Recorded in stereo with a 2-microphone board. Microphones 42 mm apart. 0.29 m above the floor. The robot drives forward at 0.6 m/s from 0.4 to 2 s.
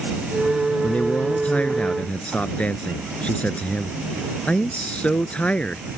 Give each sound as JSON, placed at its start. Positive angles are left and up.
{"t": 0.8, "sound": "a man speaking", "side_deg": 35}